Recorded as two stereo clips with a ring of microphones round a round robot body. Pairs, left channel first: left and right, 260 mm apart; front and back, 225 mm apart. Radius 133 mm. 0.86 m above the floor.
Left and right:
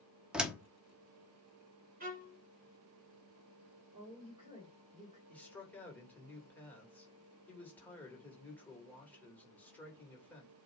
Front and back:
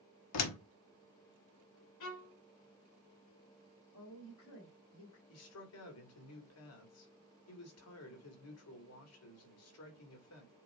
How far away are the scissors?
No scissors in this recording.